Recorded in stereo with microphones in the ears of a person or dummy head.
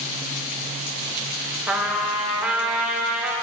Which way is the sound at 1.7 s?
5° right (ahead or behind).